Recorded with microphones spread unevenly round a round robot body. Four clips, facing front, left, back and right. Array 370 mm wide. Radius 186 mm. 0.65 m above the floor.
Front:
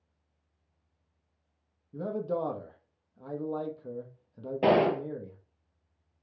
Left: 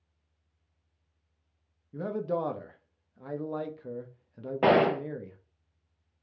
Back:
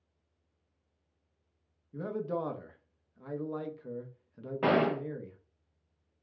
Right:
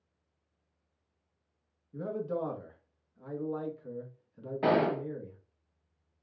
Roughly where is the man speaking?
Left.